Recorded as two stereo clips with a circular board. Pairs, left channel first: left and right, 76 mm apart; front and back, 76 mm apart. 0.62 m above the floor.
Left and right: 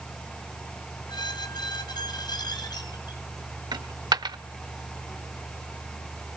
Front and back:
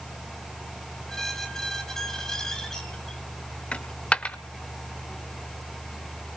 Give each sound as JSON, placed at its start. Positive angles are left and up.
{"t": 1.1, "sound": "a squeak", "azimuth_deg": 85, "distance_m": 3.0}
{"t": 3.7, "sound": "a dropped coin", "azimuth_deg": -75, "distance_m": 0.8}